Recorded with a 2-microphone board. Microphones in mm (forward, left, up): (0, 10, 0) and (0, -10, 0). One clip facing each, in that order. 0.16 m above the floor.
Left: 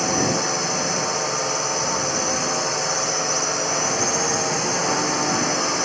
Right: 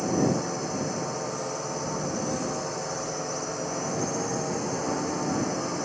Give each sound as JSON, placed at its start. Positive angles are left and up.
{"t": 0.0, "sound": "a drone", "side_deg": 80}